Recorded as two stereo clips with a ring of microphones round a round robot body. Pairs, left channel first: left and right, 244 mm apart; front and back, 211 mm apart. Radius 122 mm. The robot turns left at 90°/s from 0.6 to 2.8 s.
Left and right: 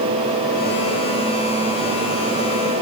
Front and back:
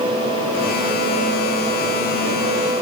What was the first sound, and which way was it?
Only background noise.